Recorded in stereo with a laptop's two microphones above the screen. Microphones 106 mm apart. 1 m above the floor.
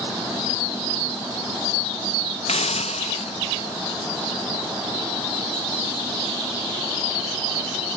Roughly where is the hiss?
Left.